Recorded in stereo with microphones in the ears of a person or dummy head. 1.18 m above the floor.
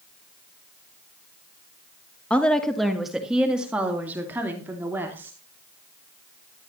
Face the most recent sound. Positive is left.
turn(degrees=-15)  # may be behind; listen again after turning